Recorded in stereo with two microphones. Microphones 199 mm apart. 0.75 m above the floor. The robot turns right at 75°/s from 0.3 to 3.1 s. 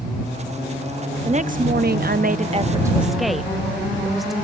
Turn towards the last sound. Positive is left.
turn(degrees=0)